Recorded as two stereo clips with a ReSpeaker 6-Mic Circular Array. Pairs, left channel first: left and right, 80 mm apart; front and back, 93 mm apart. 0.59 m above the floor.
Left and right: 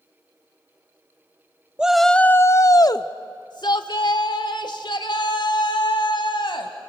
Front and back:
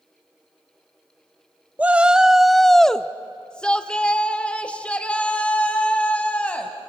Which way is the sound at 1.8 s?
135° right.